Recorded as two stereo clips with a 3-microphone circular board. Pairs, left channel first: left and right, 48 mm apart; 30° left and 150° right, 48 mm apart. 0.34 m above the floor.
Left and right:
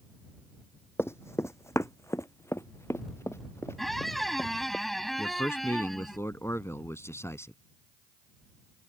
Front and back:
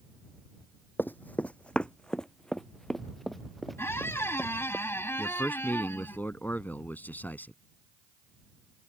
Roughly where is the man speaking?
Left.